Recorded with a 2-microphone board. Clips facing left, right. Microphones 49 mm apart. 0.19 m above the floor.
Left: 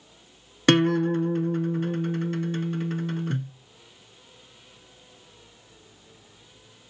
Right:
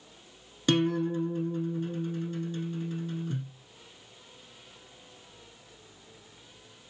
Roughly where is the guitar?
Left.